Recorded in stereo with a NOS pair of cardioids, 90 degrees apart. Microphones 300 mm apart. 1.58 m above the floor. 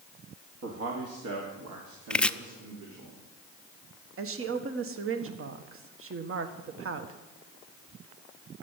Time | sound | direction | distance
0.6 | a man speaking | 55° right | 2.5 m
2.1 | chopping | 5° left | 0.5 m
4.2 | a woman speaking | 45° right | 1.6 m